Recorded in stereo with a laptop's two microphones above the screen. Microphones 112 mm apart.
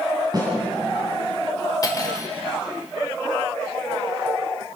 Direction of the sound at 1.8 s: 30° left (ahead or behind).